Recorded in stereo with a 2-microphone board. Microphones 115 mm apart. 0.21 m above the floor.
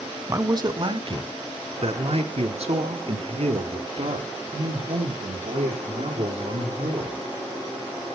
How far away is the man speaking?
About 1.3 m.